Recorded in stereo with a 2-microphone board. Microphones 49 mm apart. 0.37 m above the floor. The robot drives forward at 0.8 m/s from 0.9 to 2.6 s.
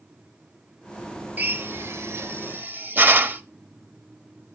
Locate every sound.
1.4 s a drill: 35° right (ahead or behind), 0.8 m; by 3.4 s 40° right (ahead or behind), 0.7 m